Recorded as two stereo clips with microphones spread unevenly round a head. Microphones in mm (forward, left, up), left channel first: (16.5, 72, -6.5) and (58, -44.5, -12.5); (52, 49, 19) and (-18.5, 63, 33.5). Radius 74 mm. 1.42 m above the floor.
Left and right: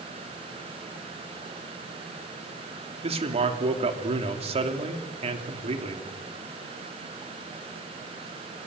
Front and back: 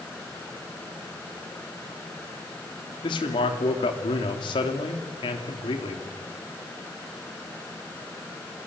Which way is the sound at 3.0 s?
35° right.